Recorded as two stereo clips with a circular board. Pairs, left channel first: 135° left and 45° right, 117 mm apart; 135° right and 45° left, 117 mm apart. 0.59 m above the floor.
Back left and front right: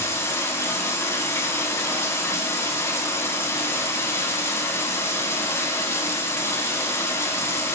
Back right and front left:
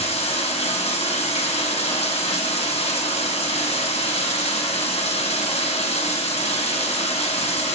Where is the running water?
160° right, 2 m.